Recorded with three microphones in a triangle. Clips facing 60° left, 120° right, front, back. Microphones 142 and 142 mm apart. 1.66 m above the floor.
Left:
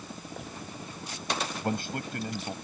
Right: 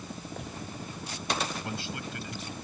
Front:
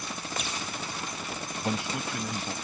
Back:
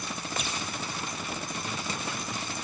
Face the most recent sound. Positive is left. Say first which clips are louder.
# left 5 dB, front 4 dB
turn(degrees=20)